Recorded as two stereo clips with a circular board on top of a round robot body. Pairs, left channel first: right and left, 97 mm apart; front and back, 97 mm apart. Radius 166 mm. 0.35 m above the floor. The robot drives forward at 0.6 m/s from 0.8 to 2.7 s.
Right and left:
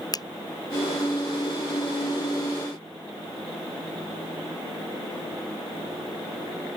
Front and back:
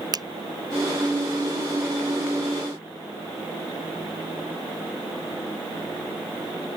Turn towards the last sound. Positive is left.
turn(degrees=-150)